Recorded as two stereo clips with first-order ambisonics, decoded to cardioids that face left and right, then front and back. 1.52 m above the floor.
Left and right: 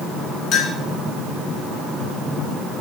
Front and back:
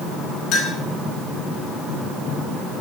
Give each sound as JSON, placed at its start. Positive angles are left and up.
{"t": 0.5, "sound": "a clink", "azimuth_deg": 50, "distance_m": 2.5}